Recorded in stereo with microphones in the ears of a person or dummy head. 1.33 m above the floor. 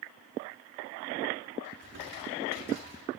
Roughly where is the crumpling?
Right.